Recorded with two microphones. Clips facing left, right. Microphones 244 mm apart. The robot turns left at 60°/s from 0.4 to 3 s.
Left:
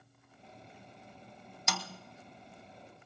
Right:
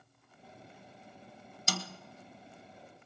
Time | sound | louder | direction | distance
1.7 | a snare drum | right 2 dB | 35° right (ahead or behind) | 0.7 m